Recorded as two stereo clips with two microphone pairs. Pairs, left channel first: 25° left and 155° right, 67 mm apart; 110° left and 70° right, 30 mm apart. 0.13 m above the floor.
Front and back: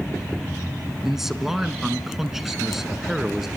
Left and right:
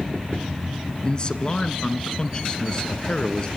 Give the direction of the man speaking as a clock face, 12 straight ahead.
8 o'clock.